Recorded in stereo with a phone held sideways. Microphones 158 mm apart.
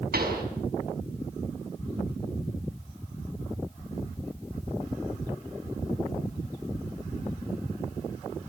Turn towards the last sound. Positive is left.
turn(degrees=-80)